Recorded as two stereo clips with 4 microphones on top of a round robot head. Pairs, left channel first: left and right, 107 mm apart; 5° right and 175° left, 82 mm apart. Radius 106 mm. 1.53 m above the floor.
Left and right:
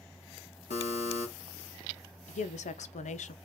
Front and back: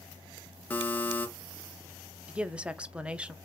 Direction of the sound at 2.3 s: 100° left.